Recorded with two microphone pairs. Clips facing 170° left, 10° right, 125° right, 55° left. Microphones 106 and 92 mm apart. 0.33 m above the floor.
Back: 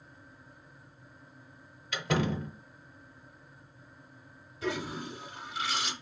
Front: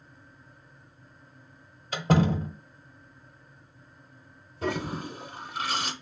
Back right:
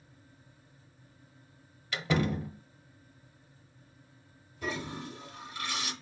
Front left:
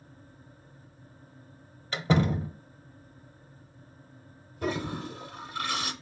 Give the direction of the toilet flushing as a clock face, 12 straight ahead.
11 o'clock.